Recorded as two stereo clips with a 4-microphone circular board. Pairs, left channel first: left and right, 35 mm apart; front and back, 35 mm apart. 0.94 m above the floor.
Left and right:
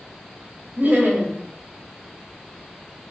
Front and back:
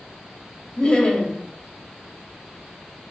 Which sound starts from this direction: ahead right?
Laughter, at 0.8 s.